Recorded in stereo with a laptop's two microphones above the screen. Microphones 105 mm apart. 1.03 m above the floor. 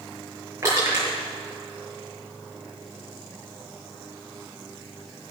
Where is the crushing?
25° right (ahead or behind), 5.5 m.